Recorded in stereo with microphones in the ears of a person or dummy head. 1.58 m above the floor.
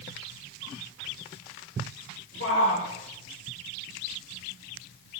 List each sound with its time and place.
2.4 s a shout: 65° left (ahead or behind), 7.5 m